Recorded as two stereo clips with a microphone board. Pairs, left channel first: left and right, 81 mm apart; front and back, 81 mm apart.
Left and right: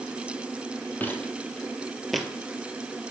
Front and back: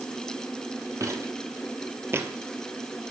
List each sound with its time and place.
1.0 s footsteps: 150° left, 2 m; by 2.3 s 175° right, 1.6 m